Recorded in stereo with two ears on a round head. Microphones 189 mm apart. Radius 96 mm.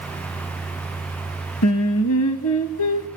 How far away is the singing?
About 0.7 m.